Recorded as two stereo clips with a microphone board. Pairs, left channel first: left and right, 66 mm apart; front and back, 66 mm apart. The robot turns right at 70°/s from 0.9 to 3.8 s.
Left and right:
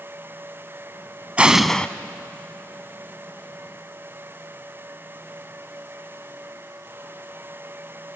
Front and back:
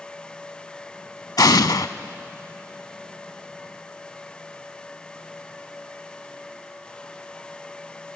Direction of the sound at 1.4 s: 20° right.